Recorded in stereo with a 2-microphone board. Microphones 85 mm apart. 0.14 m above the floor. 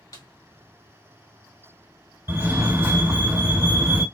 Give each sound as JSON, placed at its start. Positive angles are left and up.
{"t": 0.1, "sound": "a snare drum", "side_deg": 45, "distance_m": 1.5}
{"t": 2.3, "sound": "a fire alarm", "side_deg": -25, "distance_m": 2.0}